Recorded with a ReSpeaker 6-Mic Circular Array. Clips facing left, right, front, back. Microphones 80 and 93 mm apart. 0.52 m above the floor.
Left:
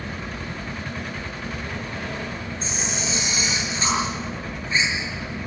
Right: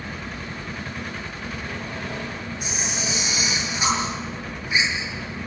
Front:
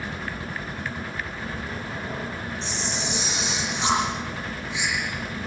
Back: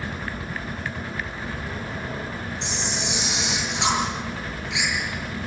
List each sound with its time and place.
2.6 s a camera shutter: 165° right, 7.5 m